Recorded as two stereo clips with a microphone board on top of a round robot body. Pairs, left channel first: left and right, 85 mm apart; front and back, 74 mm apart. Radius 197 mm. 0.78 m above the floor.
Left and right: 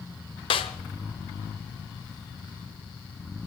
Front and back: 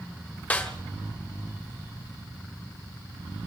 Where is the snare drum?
70° left, 1.1 m.